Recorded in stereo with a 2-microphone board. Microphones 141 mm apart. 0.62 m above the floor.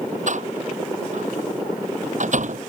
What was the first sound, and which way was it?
A door slam, 60° right (ahead or behind).